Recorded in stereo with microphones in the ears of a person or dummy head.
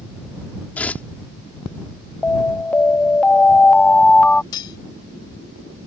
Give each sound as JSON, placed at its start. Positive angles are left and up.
{"t": 0.8, "sound": "tearing paper", "side_deg": 10}
{"t": 2.2, "sound": "an alarm", "side_deg": 5}
{"t": 4.5, "sound": "cutlery clinking", "side_deg": 25}